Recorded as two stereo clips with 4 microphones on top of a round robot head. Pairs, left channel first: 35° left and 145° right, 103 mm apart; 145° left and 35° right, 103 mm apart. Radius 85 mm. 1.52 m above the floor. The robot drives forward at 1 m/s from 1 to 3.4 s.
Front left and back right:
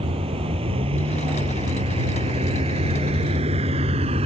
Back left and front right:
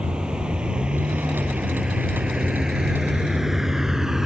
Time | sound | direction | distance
0.0 | a vehicle | 115° right | ?